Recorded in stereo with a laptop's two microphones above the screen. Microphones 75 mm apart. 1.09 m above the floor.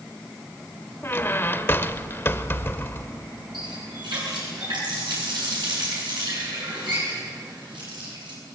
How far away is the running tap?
About 9.5 m.